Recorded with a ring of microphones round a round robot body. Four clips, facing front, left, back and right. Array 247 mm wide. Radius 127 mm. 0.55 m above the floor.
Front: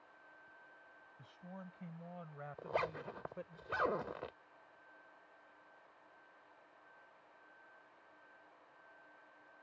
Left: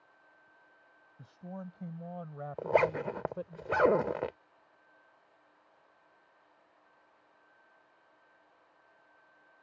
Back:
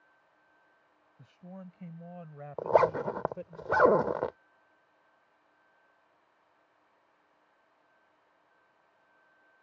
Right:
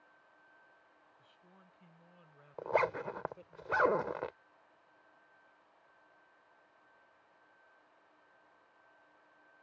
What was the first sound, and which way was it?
A man speaking, 115° left.